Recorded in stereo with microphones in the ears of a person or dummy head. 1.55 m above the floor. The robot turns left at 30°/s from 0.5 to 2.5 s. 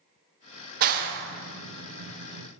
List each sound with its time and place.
0.8 s a clap: 50° right (ahead or behind), 0.6 m; by 2.5 s 80° right, 0.6 m